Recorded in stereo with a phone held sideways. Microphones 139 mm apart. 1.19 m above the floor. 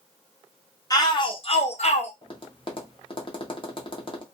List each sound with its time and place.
0.9 s a shout: 30° left (ahead or behind), 0.8 m; by 2.1 s 45° left (ahead or behind), 0.7 m
2.2 s tapping: 40° left (ahead or behind), 0.8 m